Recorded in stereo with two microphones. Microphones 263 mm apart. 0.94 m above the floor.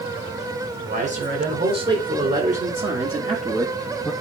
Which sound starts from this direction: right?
A man speaking, at 0.8 s.